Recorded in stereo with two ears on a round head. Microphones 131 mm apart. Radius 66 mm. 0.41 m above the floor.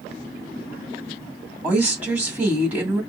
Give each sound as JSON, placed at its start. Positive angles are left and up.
{"t": 1.6, "sound": "a woman speaking", "side_deg": -10, "distance_m": 2.0}